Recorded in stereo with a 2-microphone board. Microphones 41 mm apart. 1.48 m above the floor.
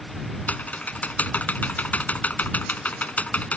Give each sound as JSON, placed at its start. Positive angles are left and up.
{"t": 0.5, "sound": "typing on a keyboard", "side_deg": 40}